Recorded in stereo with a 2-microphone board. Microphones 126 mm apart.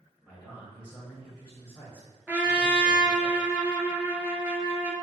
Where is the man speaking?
5° right (ahead or behind), 1.6 m.